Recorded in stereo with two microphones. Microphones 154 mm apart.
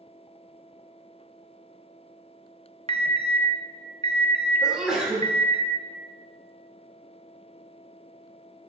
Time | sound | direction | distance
2.9 | an alarm | 40° right (ahead or behind) | 0.9 m
4.6 | a sneeze | 5° right (ahead or behind) | 2 m